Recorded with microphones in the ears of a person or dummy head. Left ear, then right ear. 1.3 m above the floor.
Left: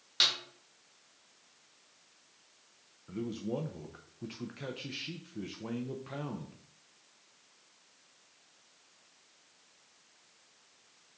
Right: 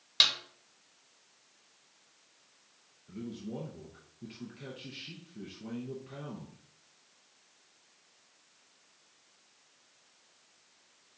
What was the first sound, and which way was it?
A snare drum, 15° right (ahead or behind).